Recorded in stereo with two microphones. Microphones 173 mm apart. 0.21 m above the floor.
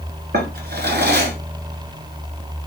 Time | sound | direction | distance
0.3 | a drawer | 70° right (ahead or behind) | 0.9 m